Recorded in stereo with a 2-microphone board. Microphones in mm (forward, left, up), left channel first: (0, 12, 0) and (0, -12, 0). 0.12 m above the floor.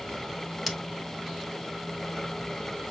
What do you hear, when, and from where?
0.7 s scissors: 5° right (ahead or behind), 1.4 m